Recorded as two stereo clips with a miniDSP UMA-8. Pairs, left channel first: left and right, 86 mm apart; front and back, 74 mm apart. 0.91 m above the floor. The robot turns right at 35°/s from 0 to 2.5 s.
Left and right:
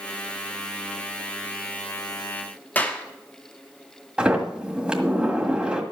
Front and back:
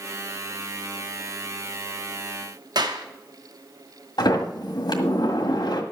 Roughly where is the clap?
Behind.